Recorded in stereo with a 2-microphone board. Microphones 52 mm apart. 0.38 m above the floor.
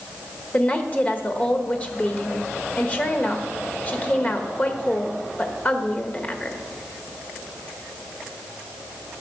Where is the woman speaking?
30° left (ahead or behind), 1.1 m.